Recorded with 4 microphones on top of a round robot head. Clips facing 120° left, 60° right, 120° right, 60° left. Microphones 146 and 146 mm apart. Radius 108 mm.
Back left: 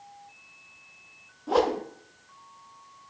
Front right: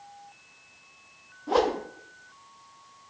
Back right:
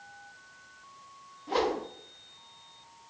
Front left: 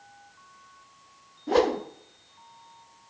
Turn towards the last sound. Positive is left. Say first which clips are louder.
# even, front left 6 dB
turn(degrees=35)